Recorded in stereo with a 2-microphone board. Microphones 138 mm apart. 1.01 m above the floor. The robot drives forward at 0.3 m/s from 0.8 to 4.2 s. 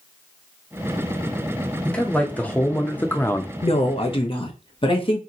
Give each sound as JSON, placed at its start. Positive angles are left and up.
{"t": 1.9, "sound": "a man speaking", "side_deg": 10, "distance_m": 1.0}
{"t": 3.6, "sound": "a woman speaking", "side_deg": 50, "distance_m": 0.7}